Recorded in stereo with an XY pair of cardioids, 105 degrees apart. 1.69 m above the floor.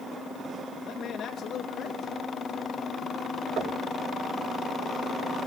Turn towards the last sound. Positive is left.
turn(degrees=-70)